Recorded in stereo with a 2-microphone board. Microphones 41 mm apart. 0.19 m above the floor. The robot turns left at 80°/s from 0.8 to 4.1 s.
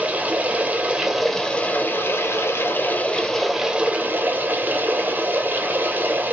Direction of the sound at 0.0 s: 150° right.